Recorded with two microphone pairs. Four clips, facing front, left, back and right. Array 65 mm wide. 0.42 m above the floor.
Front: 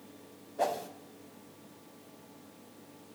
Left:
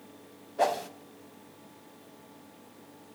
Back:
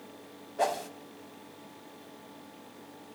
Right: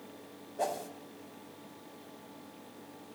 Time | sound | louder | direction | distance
0.6 | a whoosh | left 7 dB, back 2 dB | 115° left | 0.7 m